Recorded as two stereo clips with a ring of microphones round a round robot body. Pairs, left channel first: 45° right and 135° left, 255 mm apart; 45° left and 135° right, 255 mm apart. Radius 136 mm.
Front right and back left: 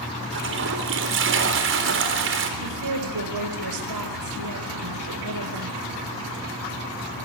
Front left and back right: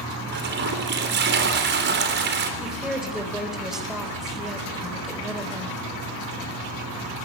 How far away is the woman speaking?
About 4 m.